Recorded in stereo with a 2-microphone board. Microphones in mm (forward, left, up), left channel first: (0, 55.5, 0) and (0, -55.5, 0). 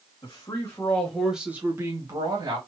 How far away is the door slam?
I don't hear a door slam.